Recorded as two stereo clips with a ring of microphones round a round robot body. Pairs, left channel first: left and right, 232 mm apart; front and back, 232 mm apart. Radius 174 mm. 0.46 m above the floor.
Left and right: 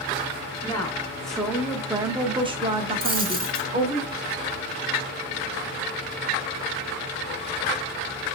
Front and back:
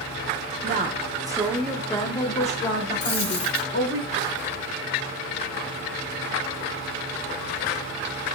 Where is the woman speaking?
160° left, 0.8 m; by 4.0 s 30° right, 1.4 m.